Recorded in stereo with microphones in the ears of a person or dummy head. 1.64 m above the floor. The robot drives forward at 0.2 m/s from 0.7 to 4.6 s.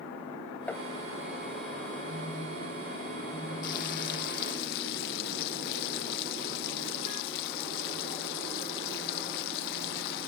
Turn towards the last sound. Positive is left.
turn(degrees=65)  # may be behind; listen again after turning